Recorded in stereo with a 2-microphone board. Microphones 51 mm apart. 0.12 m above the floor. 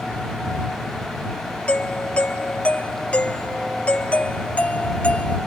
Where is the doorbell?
25° left (ahead or behind).